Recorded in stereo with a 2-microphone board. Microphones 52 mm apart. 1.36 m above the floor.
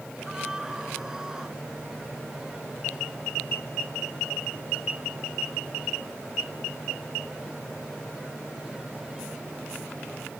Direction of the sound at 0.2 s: 15° right (ahead or behind).